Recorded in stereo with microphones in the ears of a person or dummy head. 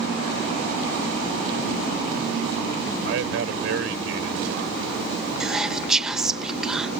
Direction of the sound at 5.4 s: 5° right (ahead or behind).